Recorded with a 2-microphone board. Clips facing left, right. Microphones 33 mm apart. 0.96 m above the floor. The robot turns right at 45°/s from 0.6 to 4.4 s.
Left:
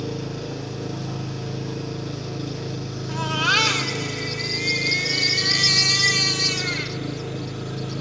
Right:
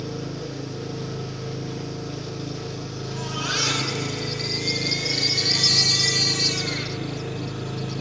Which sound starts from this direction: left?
A baby crying, at 3.1 s.